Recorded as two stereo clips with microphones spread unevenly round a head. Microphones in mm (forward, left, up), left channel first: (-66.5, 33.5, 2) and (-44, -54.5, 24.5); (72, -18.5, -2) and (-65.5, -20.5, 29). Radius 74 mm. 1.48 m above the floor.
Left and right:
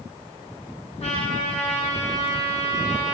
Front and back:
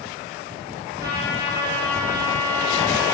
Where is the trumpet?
115° left, 5.5 m.